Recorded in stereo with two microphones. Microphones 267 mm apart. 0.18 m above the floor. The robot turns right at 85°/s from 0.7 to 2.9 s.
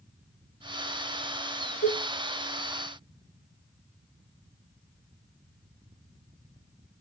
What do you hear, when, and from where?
1.8 s dishes clattering: 35° left (ahead or behind), 2 m; by 2.1 s 10° left (ahead or behind), 2 m